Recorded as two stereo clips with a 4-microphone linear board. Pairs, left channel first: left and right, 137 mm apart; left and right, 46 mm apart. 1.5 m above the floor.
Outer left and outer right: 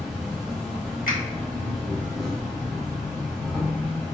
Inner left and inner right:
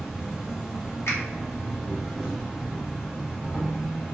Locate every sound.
0.0 s an insect: 5° right (ahead or behind), 1.2 m
1.1 s a finger snap: 75° left (ahead or behind), 1.1 m